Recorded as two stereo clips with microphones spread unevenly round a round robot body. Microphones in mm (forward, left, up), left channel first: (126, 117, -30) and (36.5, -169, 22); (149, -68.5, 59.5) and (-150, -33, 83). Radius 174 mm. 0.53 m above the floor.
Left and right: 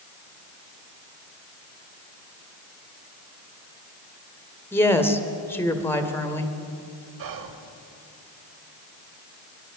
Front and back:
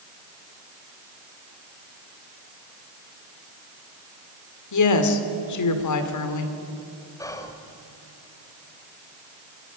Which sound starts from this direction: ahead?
A woman speaking, at 4.7 s.